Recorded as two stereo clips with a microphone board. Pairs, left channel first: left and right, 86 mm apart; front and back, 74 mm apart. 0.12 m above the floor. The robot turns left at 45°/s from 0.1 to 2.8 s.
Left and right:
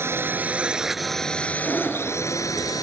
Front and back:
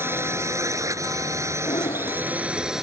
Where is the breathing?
5° left; by 2.3 s 25° right.